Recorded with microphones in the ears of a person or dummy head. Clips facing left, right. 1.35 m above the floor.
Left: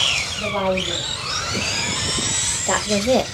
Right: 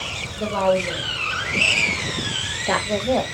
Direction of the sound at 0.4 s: 60° right (ahead or behind).